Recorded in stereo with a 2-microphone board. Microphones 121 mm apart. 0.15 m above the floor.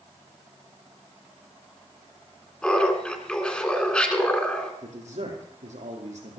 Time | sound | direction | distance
2.6 | laughter | 10° left (ahead or behind) | 2 m
4.8 | a man speaking | 80° right | 4.5 m